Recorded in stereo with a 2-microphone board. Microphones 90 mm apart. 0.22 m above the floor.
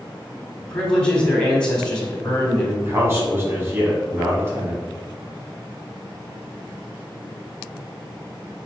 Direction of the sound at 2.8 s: 30° right (ahead or behind).